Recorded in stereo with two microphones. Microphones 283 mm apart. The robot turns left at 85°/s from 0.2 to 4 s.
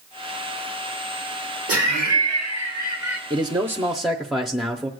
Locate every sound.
1.7 s laughter: 55° right, 1.5 m; by 3.2 s straight behind, 1.5 m
3.3 s a man speaking: 15° right (ahead or behind), 0.6 m; by 4.9 s centre (ahead or behind), 0.6 m